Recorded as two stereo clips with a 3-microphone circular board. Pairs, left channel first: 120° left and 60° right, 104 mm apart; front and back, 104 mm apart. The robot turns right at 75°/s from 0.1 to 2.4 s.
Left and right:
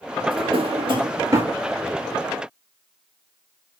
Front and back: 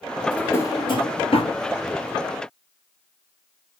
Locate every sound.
0.3 s a drawer: 85° right, 1.5 m; by 1.6 s 15° left, 1.5 m